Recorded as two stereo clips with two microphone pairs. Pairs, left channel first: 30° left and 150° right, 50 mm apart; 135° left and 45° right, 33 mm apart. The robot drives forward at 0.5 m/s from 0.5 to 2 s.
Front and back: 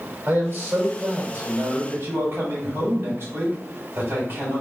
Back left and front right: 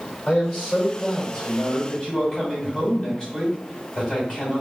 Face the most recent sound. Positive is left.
turn(degrees=180)